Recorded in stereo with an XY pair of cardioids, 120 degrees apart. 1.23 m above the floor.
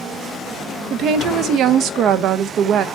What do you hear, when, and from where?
0.9 s a woman speaking: 65° right, 0.8 m